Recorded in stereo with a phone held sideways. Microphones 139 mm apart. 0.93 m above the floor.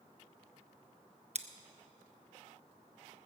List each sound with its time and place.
1.4 s scissors: 55° right (ahead or behind), 0.7 m